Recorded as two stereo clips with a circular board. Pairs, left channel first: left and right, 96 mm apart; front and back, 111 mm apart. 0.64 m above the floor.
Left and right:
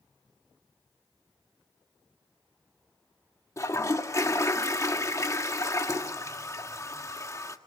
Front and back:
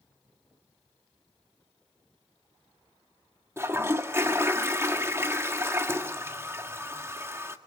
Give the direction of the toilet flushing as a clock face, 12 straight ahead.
8 o'clock.